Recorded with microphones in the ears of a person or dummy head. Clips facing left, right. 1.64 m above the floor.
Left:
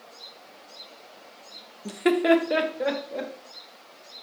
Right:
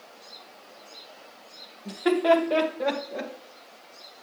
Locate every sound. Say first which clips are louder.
1.9 s laughter: left 1 dB; 40° left (ahead or behind), 1.2 m; by 3.3 s centre (ahead or behind), 2 m